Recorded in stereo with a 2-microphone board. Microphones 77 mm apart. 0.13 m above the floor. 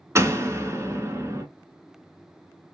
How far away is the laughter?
I don't hear laughter.